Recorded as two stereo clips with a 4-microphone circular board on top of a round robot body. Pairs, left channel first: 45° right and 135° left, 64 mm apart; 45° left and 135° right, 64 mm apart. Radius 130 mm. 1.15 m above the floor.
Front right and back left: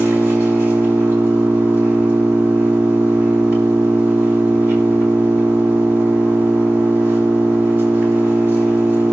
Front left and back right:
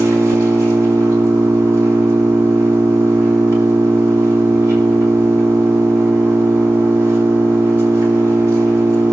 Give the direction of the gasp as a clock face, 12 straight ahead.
No gasp in this recording.